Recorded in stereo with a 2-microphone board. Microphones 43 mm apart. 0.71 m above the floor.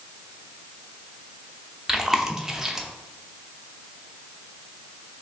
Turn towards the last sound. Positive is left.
turn(degrees=-10)  # may be behind; listen again after turning